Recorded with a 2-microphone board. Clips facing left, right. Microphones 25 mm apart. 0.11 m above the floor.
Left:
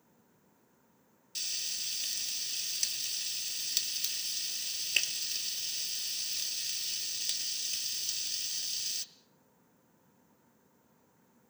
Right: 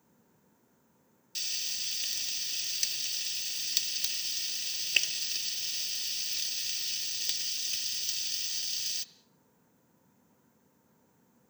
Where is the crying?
No crying in this recording.